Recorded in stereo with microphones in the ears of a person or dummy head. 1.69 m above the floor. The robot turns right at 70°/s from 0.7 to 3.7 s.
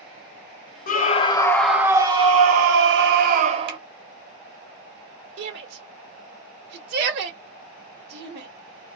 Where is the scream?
130° left, 0.9 m; by 3.8 s 35° right, 0.9 m.